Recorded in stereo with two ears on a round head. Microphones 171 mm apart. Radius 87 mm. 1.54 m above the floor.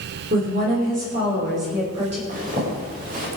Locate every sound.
0.3 s a woman speaking: 45° right (ahead or behind), 6 m; by 2.2 s 35° right (ahead or behind), 7 m
2.3 s a zipper: 45° right (ahead or behind), 7 m